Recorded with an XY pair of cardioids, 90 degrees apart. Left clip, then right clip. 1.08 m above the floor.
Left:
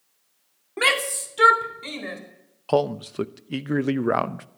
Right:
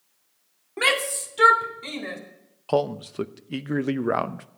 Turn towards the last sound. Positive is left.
turn(degrees=15)